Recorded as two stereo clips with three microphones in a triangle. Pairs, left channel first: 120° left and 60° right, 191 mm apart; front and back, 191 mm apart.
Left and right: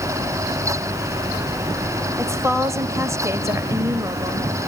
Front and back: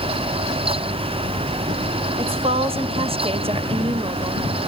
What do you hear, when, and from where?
2.2 s a woman speaking: 130° right, 1.5 m